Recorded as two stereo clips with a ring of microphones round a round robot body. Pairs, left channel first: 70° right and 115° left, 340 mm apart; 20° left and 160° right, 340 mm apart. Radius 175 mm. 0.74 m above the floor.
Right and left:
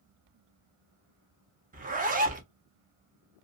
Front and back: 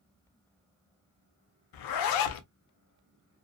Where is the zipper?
45° left, 0.6 m.